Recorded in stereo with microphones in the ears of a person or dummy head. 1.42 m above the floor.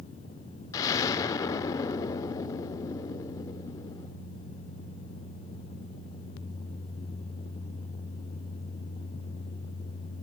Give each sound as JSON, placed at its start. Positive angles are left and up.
{"t": 0.7, "sound": "an explosion", "side_deg": 15, "distance_m": 0.7}